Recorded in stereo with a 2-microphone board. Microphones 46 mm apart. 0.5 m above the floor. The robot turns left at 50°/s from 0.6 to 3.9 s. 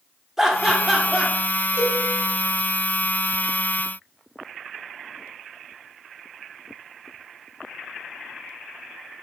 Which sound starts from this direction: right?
A cowbell, at 1.8 s.